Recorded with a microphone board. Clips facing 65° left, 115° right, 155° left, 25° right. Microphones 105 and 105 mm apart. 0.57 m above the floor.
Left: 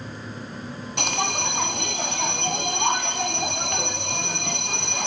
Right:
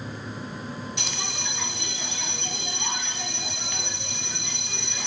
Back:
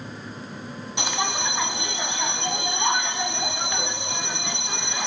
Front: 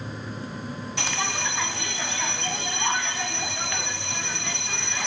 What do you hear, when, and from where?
1.0 s a bell: 85° left, 0.7 m